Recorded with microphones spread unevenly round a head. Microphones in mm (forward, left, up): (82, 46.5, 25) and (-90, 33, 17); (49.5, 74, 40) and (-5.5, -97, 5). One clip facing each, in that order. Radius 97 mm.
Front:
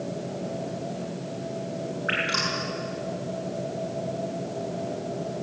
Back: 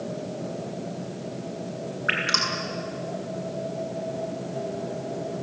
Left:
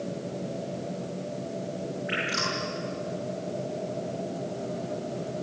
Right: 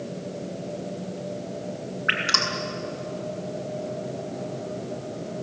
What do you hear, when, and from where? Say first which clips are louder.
2.1 s dripping: front 1 dB, right 1 dB; 130° right, 7 m